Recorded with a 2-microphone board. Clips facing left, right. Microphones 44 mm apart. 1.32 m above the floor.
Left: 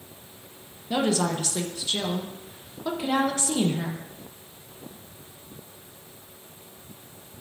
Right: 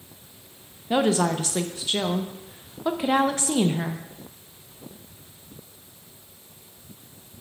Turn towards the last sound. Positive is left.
turn(degrees=-30)  # may be behind; listen again after turning